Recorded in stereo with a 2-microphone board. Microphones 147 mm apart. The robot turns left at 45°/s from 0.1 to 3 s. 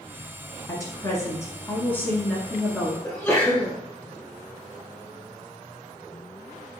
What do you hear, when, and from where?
0.7 s a woman speaking: 25° left (ahead or behind), 1.3 m; by 2.9 s 5° right (ahead or behind), 1.3 m
3.0 s a sneeze: 15° left (ahead or behind), 1.2 m